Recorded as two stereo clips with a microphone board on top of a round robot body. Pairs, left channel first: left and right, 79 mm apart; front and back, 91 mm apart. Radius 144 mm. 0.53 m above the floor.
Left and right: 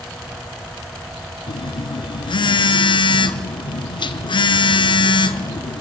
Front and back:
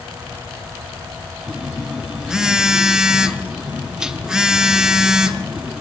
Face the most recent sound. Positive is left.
turn(degrees=100)